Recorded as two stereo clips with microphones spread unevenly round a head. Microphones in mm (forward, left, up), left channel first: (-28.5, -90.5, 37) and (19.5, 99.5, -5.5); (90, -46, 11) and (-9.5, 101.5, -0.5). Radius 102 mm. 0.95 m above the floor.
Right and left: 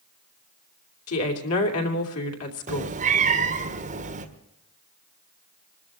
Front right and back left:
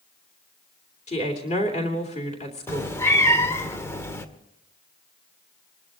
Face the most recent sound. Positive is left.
turn(degrees=20)